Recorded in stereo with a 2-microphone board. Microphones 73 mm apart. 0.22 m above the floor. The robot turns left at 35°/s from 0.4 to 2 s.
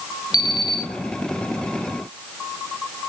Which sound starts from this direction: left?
An alarm clock, at 0.3 s.